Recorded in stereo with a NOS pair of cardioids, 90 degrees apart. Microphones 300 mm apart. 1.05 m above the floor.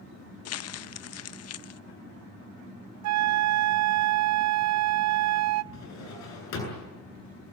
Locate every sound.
0.5 s crumpling: 55° left, 0.7 m
3.0 s a flute: 60° right, 0.6 m
5.7 s a drawer: 65° left, 9 m